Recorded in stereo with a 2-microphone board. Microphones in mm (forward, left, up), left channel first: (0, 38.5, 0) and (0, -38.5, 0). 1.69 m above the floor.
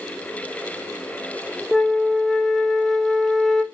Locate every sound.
1.7 s a flute: 5° left (ahead or behind), 0.5 m